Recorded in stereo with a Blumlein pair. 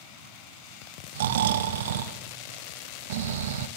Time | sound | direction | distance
1.1 | snoring | 60° right | 1.3 m